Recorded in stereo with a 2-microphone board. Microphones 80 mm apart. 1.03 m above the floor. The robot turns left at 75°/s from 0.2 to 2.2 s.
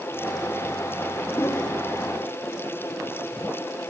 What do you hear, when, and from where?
1.3 s a whoosh: 75° left, 0.8 m; by 1.8 s 40° left, 0.8 m